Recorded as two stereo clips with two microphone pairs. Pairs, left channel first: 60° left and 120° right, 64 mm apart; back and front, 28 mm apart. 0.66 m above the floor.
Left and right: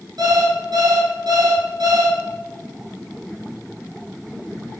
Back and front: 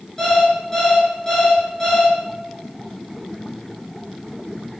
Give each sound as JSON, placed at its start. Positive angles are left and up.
{"t": 0.2, "sound": "an alarm clock", "azimuth_deg": -105, "distance_m": 4.5}